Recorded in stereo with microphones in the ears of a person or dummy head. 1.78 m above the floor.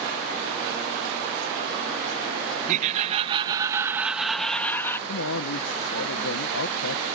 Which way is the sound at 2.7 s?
40° right (ahead or behind).